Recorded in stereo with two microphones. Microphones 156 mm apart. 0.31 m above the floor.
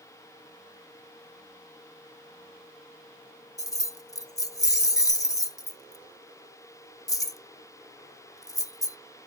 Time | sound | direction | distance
3.6 | keys jangling | 20° left (ahead or behind) | 0.5 m